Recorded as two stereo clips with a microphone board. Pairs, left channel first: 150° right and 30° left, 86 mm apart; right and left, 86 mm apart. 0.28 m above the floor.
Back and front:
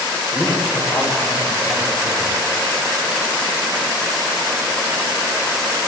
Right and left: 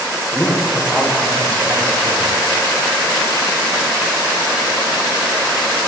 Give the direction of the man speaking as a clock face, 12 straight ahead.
6 o'clock.